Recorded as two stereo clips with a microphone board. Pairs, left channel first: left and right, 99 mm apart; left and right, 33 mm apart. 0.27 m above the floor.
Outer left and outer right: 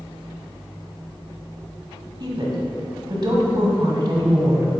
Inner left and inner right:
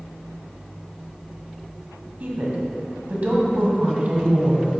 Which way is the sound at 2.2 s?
50° right (ahead or behind).